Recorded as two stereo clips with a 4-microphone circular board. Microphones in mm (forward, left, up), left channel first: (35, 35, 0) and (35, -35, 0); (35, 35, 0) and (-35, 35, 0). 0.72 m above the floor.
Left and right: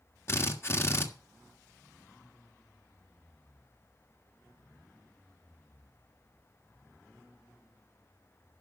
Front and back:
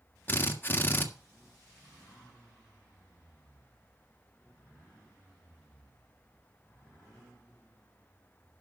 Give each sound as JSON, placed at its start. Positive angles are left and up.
{"t": 0.3, "sound": "a drill", "azimuth_deg": 50, "distance_m": 1.5}